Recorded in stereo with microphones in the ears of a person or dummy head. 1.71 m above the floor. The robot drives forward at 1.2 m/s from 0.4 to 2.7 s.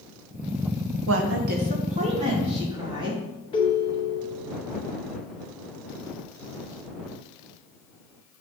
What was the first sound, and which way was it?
A woman speaking, 65° right (ahead or behind).